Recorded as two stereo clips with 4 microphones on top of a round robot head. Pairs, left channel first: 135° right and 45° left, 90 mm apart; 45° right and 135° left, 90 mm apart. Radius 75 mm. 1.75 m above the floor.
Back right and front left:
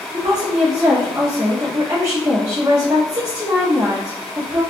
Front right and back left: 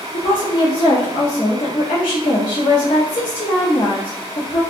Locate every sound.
0.1 s a woman speaking: 10° right, 0.6 m